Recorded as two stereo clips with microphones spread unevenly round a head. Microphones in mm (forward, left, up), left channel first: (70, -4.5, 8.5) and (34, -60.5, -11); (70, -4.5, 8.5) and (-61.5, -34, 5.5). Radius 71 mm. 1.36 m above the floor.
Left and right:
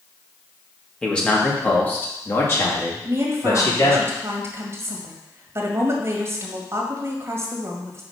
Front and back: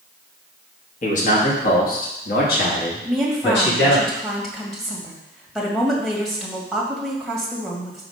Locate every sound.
1.0 s a man speaking: 20° right, 2 m; by 4.0 s 30° left, 2.5 m
3.0 s a woman speaking: 75° right, 2 m